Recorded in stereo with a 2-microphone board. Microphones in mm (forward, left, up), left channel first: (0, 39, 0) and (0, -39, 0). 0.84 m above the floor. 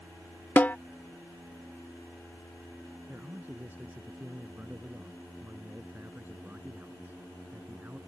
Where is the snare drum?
25° left (ahead or behind).